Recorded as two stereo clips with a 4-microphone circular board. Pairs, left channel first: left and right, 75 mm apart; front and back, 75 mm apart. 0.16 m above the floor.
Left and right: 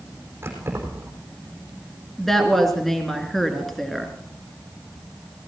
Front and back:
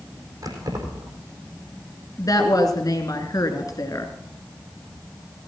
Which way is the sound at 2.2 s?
5° left.